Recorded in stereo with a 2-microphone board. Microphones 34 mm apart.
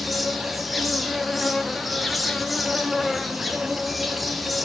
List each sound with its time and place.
0.0 s an insect: centre (ahead or behind), 1.0 m